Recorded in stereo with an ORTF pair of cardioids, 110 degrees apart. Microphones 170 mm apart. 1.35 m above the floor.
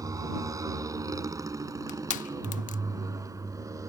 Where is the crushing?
50° left.